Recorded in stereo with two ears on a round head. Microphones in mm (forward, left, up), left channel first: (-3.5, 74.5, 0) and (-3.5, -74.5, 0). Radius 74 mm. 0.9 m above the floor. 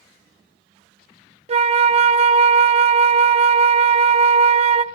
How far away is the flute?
About 0.7 m.